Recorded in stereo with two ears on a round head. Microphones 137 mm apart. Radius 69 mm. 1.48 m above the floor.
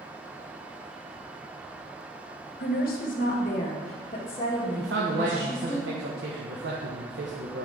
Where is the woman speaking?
65° left (ahead or behind), 1.4 m; by 5.8 s 25° left (ahead or behind), 2.5 m.